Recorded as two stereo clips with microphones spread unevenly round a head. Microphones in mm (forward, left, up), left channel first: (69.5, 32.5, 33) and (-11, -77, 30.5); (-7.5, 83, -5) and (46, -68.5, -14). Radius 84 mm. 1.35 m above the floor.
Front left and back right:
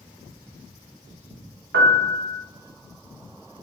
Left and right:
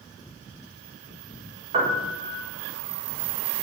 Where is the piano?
130° right, 1.7 m.